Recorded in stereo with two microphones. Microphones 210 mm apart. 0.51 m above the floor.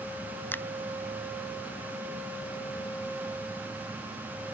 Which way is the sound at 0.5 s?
10° left (ahead or behind).